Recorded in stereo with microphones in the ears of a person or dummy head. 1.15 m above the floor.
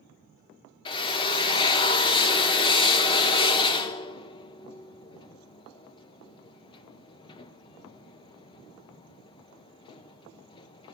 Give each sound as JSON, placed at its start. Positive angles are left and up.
{"t": 0.8, "sound": "a drill", "side_deg": 25, "distance_m": 0.6}